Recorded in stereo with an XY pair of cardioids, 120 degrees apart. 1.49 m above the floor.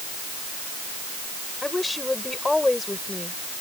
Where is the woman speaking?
15° left.